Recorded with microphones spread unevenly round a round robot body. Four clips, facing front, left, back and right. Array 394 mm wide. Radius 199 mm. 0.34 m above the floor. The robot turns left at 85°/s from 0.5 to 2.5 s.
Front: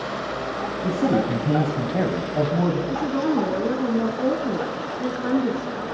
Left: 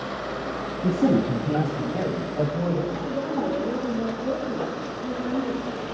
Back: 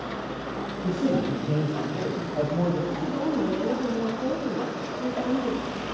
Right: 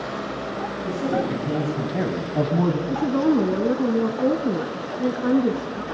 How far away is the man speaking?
About 3 m.